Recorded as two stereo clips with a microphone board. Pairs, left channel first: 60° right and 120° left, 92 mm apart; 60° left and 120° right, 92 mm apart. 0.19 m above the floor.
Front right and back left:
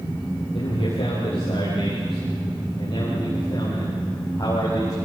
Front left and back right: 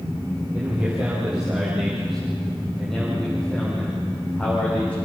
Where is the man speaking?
50° right, 7.5 m; by 5.0 s 10° right, 9 m.